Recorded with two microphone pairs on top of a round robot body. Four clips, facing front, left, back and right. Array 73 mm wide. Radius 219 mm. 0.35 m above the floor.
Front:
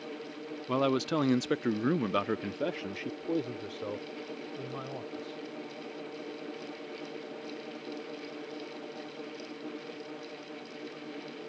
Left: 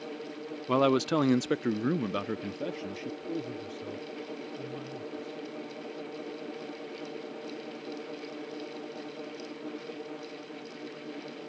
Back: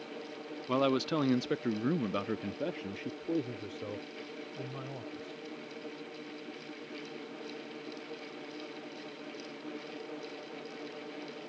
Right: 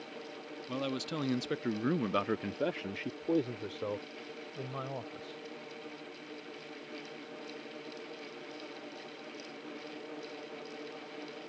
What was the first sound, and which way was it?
A man speaking, 85° left.